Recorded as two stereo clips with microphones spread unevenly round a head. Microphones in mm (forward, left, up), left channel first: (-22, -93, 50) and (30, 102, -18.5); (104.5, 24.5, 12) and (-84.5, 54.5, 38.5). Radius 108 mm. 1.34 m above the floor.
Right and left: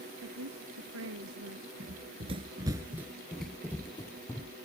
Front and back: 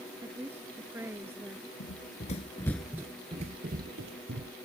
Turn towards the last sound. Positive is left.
turn(degrees=-170)